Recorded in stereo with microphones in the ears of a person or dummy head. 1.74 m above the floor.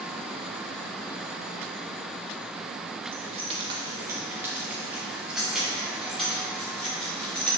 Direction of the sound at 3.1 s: 50° right (ahead or behind).